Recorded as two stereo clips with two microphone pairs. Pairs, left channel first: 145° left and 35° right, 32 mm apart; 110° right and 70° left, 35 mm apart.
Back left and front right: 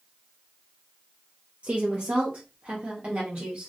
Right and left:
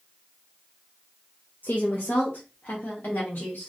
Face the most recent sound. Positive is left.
turn(degrees=-80)